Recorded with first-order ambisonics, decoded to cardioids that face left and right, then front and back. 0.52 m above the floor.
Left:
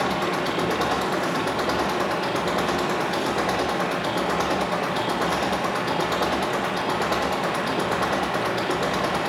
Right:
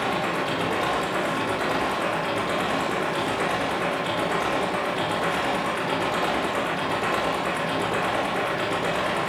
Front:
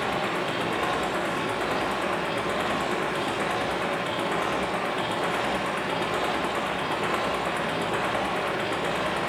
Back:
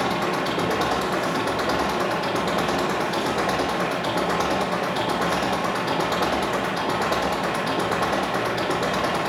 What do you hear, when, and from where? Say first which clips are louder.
0.0 s an engine running: left 1 dB, back 3 dB; 145° left, 7.5 m